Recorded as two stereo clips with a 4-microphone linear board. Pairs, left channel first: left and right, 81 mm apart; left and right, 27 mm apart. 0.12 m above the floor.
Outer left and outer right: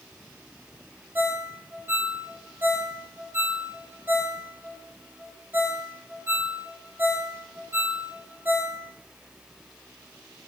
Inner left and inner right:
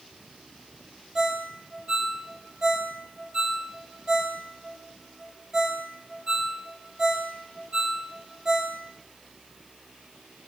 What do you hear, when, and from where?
1.1 s a ringtone: 25° right (ahead or behind), 3 m